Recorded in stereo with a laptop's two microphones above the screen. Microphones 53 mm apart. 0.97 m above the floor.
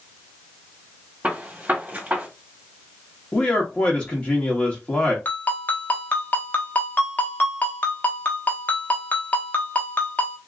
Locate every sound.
1.2 s a gunshot: 30° right (ahead or behind), 1.6 m
3.3 s a man speaking: 20° left (ahead or behind), 1.1 m
5.2 s a ringtone: 35° left (ahead or behind), 1.1 m